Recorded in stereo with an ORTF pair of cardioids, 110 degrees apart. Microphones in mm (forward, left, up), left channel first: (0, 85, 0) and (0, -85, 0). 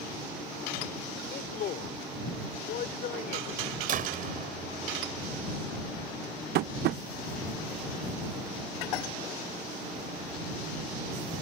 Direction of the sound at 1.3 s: 60° left.